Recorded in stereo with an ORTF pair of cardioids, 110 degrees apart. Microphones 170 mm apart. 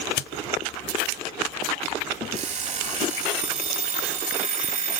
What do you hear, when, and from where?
2.3 s an alarm clock: 50° right, 3.5 m